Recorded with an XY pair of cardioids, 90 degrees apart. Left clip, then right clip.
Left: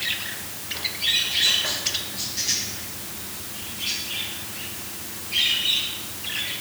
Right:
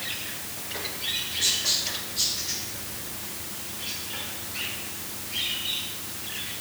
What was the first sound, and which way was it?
Only background noise.